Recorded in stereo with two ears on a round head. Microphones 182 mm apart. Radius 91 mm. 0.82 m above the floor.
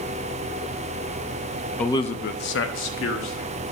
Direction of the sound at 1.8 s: 5° left (ahead or behind).